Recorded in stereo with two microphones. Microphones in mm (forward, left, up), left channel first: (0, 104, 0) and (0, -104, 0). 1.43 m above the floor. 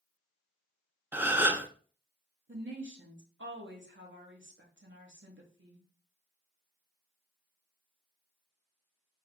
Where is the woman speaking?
65° right (ahead or behind), 1.5 m.